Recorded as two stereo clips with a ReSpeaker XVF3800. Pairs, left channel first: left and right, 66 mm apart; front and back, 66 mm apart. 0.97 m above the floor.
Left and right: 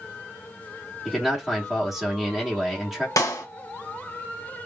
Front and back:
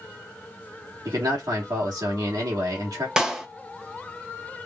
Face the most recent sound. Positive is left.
turn(degrees=100)